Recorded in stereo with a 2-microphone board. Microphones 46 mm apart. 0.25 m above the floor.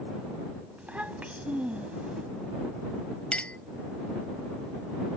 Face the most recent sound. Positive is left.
turn(degrees=25)  # may be behind; listen again after turning